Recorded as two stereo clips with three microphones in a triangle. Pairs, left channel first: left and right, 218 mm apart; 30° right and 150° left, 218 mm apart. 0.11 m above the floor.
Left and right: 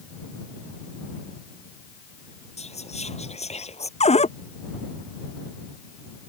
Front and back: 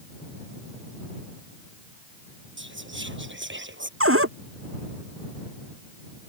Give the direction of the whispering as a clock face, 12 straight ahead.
7 o'clock.